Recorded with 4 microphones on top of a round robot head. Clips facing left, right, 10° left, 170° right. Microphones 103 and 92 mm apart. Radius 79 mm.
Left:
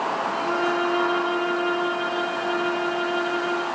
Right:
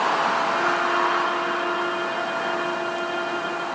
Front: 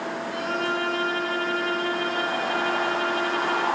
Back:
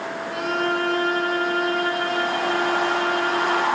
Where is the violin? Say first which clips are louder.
Right 1 dB, back 5 dB; 145° left, 7.5 m.